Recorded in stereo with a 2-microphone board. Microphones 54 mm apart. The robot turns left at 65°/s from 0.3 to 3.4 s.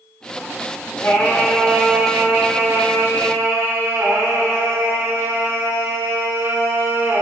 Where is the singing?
45° left, 3.5 m; by 7.2 s 110° right, 3.5 m.